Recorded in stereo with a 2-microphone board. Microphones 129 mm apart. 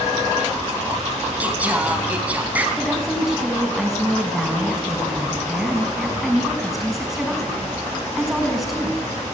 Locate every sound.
1.4 s singing: 10° right (ahead or behind), 3.5 m
2.8 s a woman speaking: centre (ahead or behind), 5.5 m